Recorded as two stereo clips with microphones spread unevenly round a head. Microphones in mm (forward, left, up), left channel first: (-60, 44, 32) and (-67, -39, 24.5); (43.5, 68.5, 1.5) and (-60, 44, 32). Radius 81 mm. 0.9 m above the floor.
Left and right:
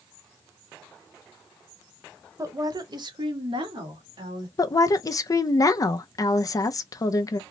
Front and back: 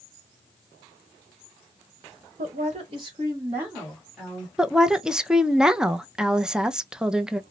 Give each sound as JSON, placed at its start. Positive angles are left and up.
{"t": 2.4, "sound": "a woman speaking", "azimuth_deg": -135, "distance_m": 1.2}
{"t": 4.6, "sound": "a woman speaking", "azimuth_deg": 90, "distance_m": 0.5}